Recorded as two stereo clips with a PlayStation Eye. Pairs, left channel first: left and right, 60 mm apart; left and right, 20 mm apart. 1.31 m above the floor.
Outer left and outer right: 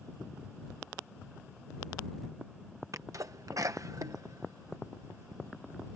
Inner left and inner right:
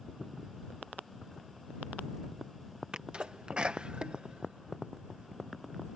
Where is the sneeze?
65° right (ahead or behind).